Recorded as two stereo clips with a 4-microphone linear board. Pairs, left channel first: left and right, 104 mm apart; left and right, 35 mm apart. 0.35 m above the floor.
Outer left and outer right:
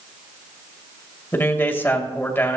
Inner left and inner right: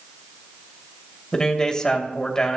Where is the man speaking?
20° left (ahead or behind), 1.7 m.